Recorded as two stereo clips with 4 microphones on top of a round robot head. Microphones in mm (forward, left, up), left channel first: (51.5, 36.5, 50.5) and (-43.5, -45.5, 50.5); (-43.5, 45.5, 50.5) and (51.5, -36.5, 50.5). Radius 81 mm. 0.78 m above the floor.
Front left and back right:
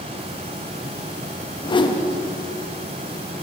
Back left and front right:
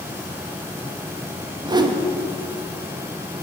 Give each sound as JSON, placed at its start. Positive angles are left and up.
{"t": 1.6, "sound": "a whoosh", "azimuth_deg": 5, "distance_m": 1.1}